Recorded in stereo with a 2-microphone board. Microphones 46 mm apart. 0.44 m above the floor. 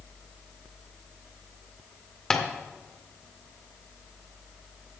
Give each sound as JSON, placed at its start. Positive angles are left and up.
{"t": 2.3, "sound": "tapping", "side_deg": 15, "distance_m": 1.6}